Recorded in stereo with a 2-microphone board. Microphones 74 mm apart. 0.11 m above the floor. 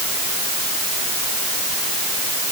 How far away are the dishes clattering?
I don't hear dishes clattering.